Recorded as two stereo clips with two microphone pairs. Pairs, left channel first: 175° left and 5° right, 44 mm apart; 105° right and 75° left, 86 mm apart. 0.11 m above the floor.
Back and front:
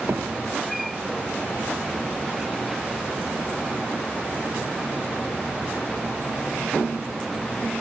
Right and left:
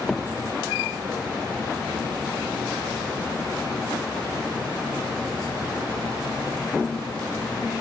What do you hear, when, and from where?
0.1 s hammering: 15° right